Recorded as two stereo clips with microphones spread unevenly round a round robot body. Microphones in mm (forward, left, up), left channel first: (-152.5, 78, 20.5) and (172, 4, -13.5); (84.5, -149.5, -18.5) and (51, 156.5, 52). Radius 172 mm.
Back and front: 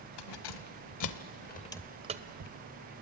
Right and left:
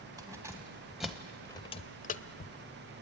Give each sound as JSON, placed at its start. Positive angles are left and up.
{"t": 0.2, "sound": "keys jangling", "azimuth_deg": 180, "distance_m": 1.6}